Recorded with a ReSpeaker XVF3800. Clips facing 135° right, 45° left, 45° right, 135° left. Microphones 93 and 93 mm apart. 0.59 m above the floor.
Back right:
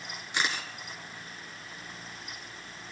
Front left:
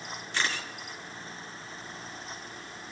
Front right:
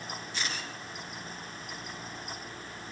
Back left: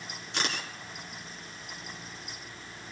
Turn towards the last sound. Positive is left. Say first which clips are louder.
# even, back left 5 dB
turn(degrees=150)